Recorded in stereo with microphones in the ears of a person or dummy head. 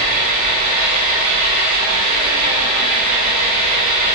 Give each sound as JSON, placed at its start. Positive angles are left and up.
{"t": 0.0, "sound": "an engine running", "side_deg": -50, "distance_m": 9.5}